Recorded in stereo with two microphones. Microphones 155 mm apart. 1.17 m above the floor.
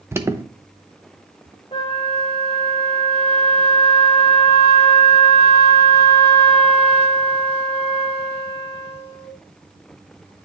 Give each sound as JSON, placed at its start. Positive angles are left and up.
{"t": 0.1, "sound": "an alarm", "side_deg": -15, "distance_m": 0.7}
{"t": 1.7, "sound": "a flute", "side_deg": 35, "distance_m": 1.5}